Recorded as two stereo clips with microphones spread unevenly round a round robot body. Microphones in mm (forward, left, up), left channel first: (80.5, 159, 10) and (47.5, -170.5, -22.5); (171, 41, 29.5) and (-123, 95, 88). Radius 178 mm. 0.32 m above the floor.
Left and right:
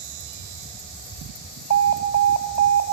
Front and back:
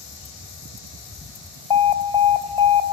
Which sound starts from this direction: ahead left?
An alarm, at 1.7 s.